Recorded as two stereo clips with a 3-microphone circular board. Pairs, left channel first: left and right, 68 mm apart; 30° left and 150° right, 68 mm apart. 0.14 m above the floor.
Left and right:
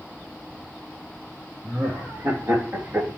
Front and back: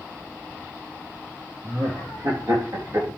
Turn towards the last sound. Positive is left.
turn(degrees=-135)